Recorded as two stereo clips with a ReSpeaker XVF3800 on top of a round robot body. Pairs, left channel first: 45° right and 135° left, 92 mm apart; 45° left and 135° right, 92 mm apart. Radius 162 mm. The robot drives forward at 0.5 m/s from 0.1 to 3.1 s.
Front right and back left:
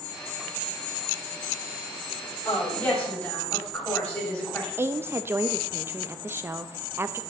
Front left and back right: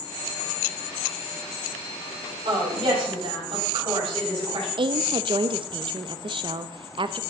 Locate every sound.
2.5 s a woman speaking: 110° right, 7.5 m
4.8 s a woman speaking: 160° right, 0.8 m